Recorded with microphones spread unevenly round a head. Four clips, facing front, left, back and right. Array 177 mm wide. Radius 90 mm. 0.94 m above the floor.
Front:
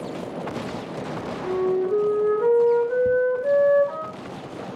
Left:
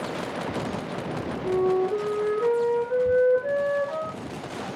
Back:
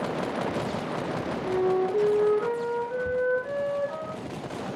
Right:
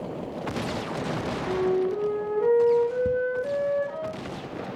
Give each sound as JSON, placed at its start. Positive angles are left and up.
{"t": 1.4, "sound": "a flute", "azimuth_deg": 10, "distance_m": 5.5}
{"t": 3.0, "sound": "ticking", "azimuth_deg": -60, "distance_m": 2.5}